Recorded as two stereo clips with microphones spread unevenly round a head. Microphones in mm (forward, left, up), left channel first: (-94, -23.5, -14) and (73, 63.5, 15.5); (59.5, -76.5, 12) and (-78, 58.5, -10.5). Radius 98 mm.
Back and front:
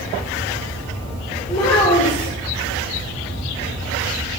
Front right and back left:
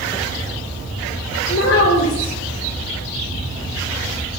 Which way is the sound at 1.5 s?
90° right.